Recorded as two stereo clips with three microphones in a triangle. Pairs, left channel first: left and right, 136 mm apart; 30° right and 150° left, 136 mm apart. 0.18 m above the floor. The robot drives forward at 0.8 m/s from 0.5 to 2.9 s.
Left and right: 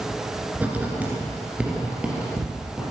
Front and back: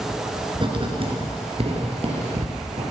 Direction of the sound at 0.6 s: 165° right.